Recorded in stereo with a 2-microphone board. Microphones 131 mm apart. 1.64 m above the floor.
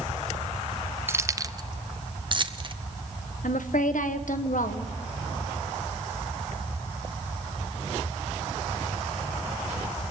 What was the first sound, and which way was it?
Keys jangling, 20° right (ahead or behind).